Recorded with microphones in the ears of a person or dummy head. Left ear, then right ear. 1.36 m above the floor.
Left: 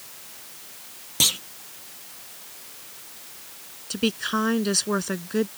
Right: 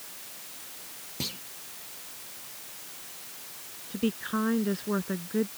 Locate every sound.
1.2 s a clunk: 50° left (ahead or behind)
3.9 s a woman speaking: 80° left